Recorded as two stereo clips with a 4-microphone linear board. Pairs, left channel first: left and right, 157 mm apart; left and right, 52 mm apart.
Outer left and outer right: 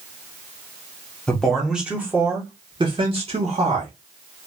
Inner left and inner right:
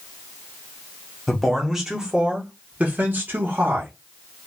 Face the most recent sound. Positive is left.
turn(degrees=-50)  # may be behind; listen again after turning